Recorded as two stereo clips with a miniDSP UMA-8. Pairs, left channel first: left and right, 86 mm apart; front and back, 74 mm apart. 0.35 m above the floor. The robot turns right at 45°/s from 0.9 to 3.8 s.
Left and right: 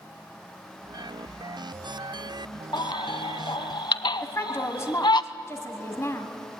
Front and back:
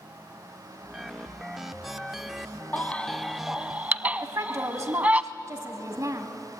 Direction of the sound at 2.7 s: 65° left.